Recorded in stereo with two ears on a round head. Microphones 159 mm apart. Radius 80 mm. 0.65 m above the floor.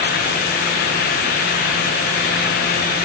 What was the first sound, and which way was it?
Only background noise.